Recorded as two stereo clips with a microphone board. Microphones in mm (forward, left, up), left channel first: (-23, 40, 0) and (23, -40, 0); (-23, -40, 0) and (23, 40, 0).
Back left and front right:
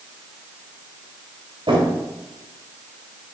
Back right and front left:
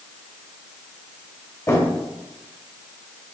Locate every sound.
1.7 s a drawer: 65° right, 2.0 m